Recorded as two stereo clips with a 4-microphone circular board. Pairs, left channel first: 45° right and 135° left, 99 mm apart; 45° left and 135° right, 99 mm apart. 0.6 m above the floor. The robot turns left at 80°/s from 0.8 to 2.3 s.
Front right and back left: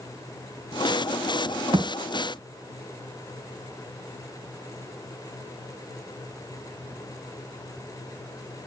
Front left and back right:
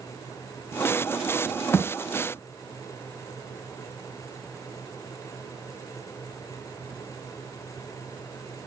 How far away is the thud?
About 2.5 m.